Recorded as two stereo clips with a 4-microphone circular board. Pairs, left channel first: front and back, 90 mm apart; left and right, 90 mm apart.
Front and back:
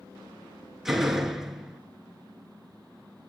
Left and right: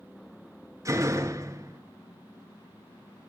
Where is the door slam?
95° right, 1.2 m.